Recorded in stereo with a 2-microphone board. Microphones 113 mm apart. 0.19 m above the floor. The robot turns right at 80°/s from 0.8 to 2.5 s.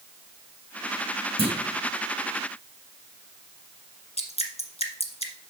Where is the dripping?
65° left (ahead or behind), 1.3 m.